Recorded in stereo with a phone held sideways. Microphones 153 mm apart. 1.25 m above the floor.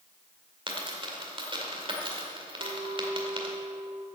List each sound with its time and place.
0.7 s a dropped coin: 35° right (ahead or behind), 1.7 m
2.6 s a clink: 70° right (ahead or behind), 2.5 m